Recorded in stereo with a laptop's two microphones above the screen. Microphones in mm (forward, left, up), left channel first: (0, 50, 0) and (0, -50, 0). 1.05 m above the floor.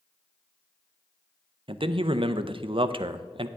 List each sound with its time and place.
1.7 s a man speaking: 60° right (ahead or behind), 0.5 m